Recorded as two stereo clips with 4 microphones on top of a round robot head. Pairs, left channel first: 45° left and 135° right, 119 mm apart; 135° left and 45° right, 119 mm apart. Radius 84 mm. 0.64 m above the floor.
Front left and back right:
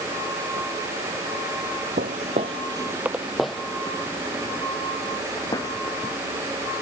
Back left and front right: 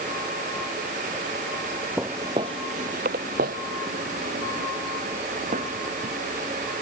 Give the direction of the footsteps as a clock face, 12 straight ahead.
4 o'clock.